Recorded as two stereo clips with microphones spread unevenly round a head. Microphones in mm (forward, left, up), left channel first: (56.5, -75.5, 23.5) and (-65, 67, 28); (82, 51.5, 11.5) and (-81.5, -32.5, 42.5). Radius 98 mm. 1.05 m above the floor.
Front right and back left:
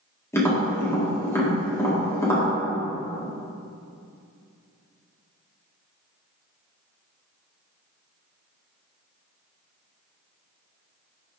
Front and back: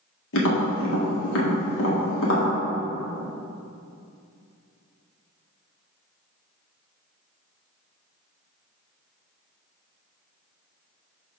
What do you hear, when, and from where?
0.3 s tapping: 25° left, 1.8 m